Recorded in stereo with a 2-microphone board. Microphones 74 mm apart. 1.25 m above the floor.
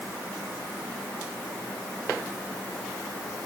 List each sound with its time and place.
Only background noise.